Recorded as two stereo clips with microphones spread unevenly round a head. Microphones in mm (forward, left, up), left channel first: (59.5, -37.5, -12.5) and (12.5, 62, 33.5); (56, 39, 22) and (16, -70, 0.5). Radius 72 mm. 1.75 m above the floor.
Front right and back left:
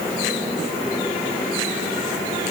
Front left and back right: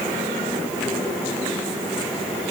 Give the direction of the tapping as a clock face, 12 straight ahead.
I don't hear tapping.